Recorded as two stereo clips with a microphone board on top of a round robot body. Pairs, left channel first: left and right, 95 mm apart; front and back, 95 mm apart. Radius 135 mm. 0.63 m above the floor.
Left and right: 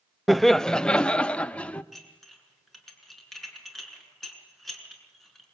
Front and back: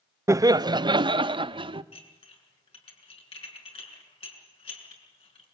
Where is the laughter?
Straight behind, 0.6 m; by 1.8 s 165° left, 1.4 m.